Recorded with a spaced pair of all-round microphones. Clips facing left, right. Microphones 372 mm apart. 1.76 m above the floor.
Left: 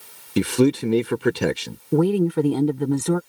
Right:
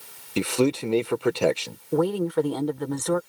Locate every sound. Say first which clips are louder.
0.4 s a man speaking: left 4 dB; 25° left (ahead or behind)
1.9 s a woman speaking: left 4 dB; 40° left (ahead or behind)